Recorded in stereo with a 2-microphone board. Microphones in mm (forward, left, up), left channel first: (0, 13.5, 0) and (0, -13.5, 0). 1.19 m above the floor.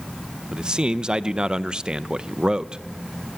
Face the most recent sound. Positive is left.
turn(degrees=-35)  # may be behind; listen again after turning